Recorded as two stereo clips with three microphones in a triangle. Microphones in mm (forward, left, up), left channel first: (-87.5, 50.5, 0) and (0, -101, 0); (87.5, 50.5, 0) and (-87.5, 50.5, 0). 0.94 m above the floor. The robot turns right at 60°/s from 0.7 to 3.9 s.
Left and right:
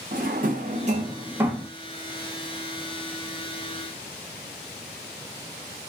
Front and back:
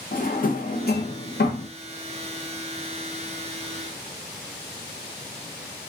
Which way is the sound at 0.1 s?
30° right.